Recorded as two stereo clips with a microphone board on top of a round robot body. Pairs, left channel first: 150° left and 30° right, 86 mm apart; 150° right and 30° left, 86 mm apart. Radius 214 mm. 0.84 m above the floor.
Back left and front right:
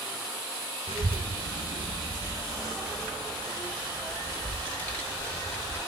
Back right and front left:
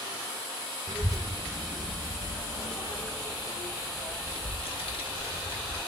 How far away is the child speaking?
About 0.7 m.